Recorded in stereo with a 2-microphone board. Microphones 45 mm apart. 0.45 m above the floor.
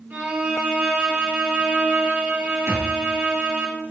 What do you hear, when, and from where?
0.1 s a violin: 45° right (ahead or behind), 2.5 m
2.7 s a thud: 85° right, 2.5 m